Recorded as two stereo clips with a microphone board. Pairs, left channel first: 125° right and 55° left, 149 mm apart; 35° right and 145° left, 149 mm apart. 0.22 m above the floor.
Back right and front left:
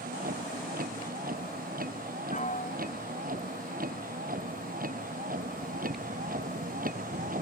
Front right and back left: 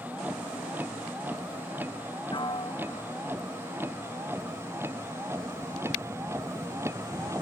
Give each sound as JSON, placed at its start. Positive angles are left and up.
{"t": 0.0, "sound": "a vehicle", "azimuth_deg": 65}
{"t": 2.3, "sound": "a piano", "azimuth_deg": -90}